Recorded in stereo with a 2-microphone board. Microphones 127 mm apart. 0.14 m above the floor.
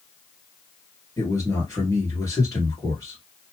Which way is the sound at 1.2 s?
25° left (ahead or behind).